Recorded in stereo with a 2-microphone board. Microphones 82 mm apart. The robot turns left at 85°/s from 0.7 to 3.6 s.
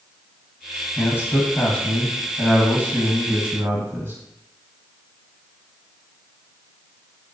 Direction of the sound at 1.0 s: 25° left (ahead or behind).